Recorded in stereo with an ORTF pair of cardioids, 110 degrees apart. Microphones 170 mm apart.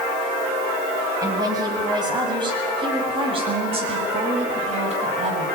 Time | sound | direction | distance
1.2 | a woman speaking | 20° right | 8 m